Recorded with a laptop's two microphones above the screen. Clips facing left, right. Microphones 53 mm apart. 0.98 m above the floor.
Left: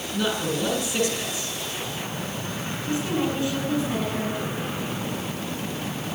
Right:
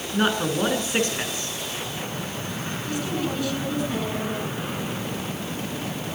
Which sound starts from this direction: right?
A man speaking, at 0.1 s.